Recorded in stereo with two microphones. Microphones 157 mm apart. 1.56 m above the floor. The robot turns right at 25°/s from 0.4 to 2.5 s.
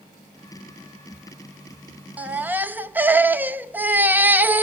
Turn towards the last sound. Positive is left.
turn(degrees=-10)  # may be behind; listen again after turning